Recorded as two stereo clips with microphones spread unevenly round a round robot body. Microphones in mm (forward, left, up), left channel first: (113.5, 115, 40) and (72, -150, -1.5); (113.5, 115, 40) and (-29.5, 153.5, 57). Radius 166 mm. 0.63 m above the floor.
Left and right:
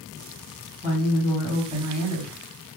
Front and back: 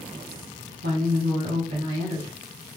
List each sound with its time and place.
0.8 s a woman speaking: 165° right, 2.0 m